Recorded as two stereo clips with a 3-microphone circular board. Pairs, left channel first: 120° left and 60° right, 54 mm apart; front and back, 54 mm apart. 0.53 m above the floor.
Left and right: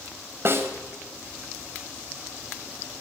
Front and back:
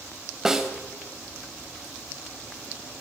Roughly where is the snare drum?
Right.